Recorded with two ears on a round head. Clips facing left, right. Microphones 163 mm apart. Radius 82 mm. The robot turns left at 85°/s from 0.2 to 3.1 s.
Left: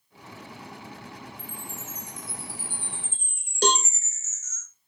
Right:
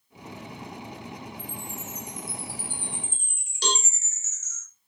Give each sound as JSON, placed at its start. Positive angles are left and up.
{"t": 1.4, "sound": "a chime", "azimuth_deg": 30, "distance_m": 5.5}
{"t": 3.6, "sound": "a cowbell", "side_deg": 40, "distance_m": 0.9}